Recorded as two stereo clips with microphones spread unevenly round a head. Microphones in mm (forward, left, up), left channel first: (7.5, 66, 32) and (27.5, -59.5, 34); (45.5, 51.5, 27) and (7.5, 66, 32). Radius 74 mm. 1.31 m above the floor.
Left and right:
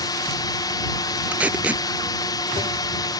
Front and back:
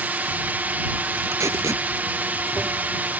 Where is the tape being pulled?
165° right.